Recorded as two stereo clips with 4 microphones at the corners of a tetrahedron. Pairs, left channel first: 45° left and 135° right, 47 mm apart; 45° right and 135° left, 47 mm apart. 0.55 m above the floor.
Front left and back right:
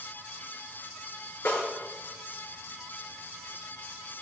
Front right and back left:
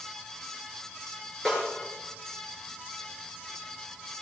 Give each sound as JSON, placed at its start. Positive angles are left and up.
{"t": 1.4, "sound": "a snare drum", "azimuth_deg": 35, "distance_m": 8.0}